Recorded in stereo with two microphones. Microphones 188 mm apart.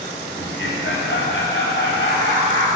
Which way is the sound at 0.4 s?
80° left.